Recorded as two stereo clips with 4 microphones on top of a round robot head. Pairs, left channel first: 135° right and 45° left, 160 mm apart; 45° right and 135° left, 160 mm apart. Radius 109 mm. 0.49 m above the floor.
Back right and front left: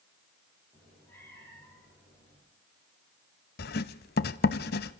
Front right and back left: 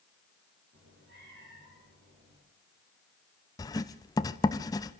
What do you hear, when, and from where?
0.7 s a cat meowing: 145° left, 9 m
3.6 s writing: 110° right, 0.5 m